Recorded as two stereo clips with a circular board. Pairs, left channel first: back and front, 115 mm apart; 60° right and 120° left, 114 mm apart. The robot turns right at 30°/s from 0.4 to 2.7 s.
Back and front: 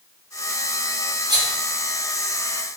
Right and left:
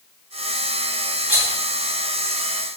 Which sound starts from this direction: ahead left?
A rattle, at 1.3 s.